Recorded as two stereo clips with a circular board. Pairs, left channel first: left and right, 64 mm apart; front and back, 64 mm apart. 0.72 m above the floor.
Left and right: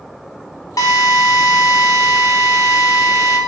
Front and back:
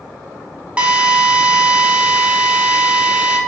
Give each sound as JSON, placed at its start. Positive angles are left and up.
{"t": 0.8, "sound": "a drill", "azimuth_deg": 110, "distance_m": 1.5}